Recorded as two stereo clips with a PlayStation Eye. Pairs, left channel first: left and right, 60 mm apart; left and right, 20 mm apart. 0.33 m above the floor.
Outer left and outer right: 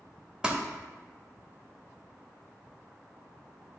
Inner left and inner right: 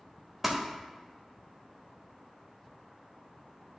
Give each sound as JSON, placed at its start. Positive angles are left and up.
{"t": 0.4, "sound": "crumpling", "side_deg": -15, "distance_m": 0.9}